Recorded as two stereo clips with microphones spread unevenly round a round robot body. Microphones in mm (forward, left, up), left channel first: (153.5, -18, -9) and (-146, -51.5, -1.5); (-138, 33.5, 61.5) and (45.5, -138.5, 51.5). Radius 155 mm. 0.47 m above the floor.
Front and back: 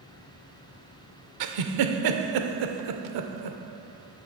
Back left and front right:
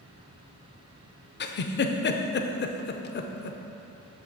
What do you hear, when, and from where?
1.4 s a giggle: 175° right, 0.5 m